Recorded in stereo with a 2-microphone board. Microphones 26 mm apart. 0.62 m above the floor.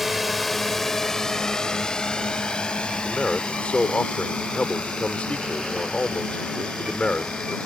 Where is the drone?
5° right (ahead or behind); by 7.7 s 70° left (ahead or behind).